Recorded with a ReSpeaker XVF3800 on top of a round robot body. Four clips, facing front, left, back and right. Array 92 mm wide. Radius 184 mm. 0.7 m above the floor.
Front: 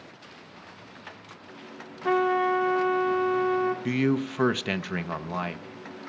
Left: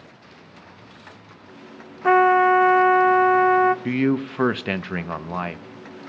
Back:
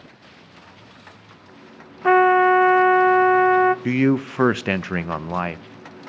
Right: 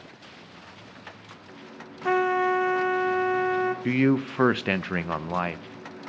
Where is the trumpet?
140° left, 0.5 m.